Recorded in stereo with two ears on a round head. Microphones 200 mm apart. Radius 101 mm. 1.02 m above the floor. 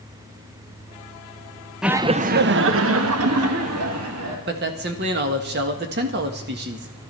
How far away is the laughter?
About 0.7 m.